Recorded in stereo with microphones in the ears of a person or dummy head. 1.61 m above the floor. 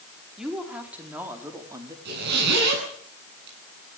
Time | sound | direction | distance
0.4 | a woman speaking | 5° right (ahead or behind) | 4.5 m
2.0 | a zipper | 60° right (ahead or behind) | 10 m